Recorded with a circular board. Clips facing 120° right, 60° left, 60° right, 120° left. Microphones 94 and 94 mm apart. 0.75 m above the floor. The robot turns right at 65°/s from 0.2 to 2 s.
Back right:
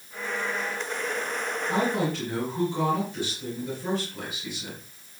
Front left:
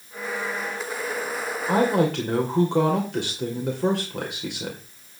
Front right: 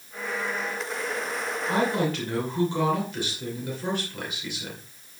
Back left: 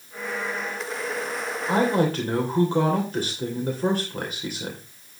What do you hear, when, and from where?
1.7 s a woman speaking: 50° left, 2.5 m; by 4.8 s 70° left, 2.5 m